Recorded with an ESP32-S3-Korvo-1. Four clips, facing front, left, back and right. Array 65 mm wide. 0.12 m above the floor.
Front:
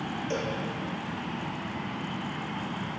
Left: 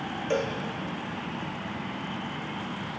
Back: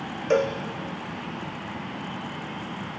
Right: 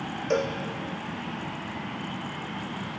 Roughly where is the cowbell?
Behind.